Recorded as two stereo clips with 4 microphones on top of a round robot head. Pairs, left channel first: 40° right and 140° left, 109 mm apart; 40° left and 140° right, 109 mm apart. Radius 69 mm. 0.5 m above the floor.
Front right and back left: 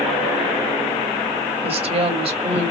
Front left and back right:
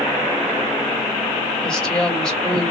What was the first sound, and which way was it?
A woman speaking, 125° left.